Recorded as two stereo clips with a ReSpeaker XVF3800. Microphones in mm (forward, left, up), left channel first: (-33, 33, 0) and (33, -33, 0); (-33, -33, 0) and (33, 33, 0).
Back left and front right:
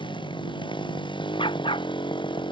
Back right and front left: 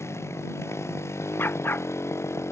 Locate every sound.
0.0 s a motorcycle: 165° left
1.4 s a dog barking: 160° left